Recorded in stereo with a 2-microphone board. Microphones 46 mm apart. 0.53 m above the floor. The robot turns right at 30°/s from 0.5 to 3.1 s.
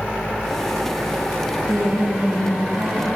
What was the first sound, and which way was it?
A woman speaking, 95° right.